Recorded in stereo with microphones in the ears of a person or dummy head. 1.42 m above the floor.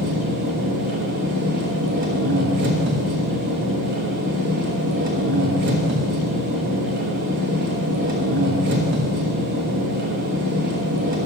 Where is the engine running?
50° right (ahead or behind), 1.1 m.